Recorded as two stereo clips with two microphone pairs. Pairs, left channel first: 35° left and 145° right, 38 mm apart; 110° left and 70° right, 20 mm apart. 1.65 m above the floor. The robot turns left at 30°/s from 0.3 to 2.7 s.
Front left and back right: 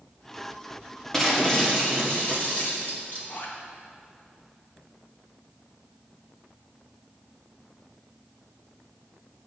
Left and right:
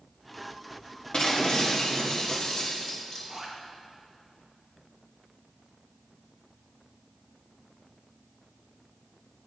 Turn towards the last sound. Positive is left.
turn(degrees=10)